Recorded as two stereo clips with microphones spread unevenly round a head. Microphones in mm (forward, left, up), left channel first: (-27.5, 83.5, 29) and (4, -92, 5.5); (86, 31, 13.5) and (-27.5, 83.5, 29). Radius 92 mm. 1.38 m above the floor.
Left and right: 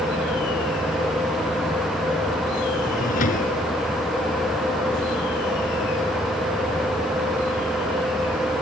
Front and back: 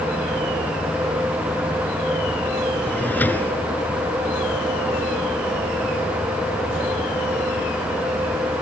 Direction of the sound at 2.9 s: 55° left.